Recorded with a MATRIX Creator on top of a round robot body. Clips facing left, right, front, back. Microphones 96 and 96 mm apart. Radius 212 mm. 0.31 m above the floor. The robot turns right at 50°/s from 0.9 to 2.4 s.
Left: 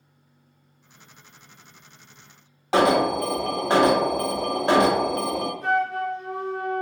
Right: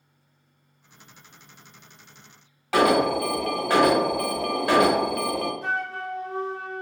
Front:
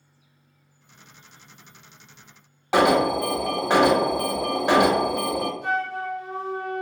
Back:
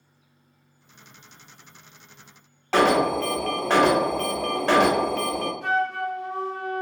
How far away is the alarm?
About 0.8 m.